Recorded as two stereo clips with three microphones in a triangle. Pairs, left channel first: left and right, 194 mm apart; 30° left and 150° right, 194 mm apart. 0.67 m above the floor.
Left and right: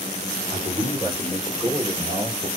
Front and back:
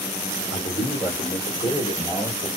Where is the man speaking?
15° right, 1.7 m; by 2.5 s 25° right, 3.5 m.